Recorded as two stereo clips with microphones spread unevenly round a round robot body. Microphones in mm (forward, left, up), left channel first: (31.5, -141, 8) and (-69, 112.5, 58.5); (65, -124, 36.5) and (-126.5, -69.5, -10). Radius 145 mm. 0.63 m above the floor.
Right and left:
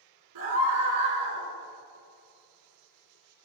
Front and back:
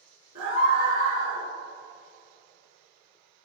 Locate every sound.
0.3 s a scream: 90° left, 7 m; by 1.4 s 95° left, 7 m